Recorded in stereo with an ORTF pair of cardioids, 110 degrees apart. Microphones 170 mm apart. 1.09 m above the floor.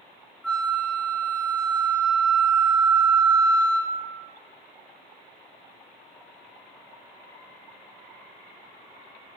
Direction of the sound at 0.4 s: 5° left.